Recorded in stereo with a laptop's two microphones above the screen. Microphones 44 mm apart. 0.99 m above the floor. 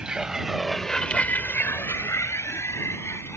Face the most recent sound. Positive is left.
turn(degrees=75)  # may be behind; listen again after turning